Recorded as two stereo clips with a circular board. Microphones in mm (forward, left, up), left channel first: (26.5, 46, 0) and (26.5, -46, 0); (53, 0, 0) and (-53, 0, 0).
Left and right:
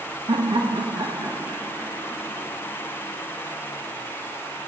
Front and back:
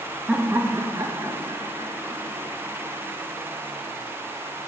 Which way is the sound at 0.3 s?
100° right.